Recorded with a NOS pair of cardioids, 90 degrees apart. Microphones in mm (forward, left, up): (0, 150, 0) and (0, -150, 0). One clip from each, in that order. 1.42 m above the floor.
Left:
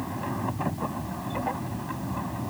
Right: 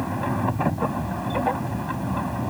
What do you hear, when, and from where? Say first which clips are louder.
0.0 s a machine running: right 6 dB; 50° right